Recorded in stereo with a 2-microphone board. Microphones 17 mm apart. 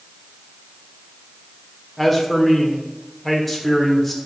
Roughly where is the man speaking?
Centre.